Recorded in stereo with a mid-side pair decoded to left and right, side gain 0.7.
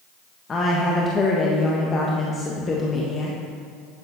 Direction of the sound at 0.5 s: 30° left.